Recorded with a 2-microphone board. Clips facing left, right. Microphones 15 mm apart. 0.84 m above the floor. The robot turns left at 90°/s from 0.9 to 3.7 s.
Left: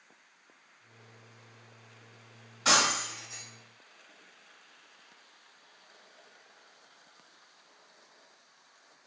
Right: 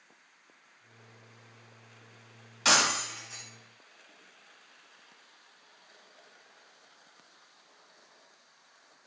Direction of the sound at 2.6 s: 65° right (ahead or behind).